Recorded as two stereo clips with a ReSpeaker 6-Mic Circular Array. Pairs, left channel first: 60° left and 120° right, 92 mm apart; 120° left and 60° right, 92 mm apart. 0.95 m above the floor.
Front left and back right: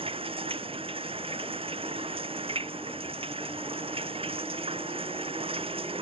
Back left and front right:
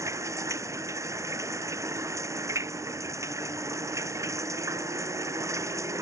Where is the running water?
115° right.